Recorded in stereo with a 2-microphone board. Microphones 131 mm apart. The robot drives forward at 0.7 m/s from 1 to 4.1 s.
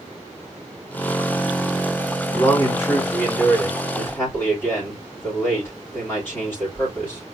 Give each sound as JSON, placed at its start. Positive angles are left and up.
{"t": 2.3, "sound": "a man speaking", "side_deg": 20, "distance_m": 2.5}